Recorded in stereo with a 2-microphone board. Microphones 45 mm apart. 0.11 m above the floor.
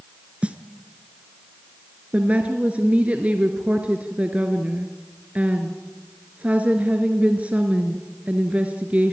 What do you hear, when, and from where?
0.4 s a snare drum: 25° right (ahead or behind), 0.9 m
2.1 s a woman speaking: 30° right (ahead or behind), 1.3 m